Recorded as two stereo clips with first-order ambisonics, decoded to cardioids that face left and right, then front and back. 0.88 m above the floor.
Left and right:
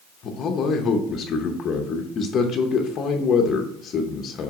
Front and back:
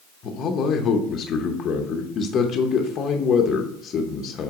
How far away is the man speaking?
About 0.8 m.